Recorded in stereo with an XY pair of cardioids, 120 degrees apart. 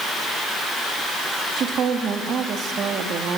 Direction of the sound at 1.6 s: 50° right.